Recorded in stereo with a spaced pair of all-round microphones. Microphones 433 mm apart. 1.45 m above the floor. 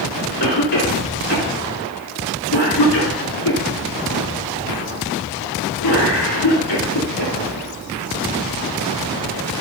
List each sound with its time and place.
0.4 s a cough: 70° left (ahead or behind), 4 m